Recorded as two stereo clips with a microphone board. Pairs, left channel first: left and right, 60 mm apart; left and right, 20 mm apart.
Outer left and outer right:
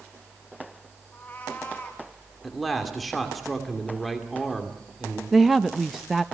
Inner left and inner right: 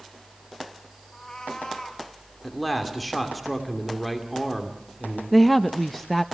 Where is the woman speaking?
5° right (ahead or behind), 0.6 m.